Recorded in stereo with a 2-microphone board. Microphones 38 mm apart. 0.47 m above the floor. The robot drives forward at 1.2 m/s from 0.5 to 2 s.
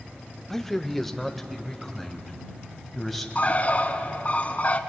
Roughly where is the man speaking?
Centre.